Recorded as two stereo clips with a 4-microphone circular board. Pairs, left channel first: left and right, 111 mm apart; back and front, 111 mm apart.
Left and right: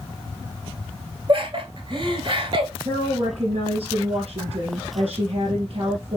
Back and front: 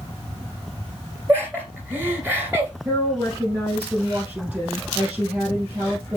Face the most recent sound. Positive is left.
turn(degrees=-70)